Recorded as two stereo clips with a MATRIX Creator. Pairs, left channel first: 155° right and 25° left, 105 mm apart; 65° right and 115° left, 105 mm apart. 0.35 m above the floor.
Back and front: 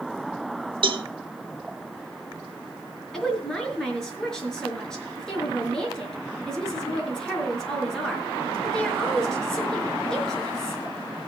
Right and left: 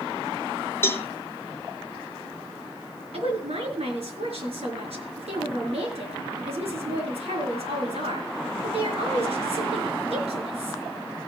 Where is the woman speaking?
115° left, 5 m.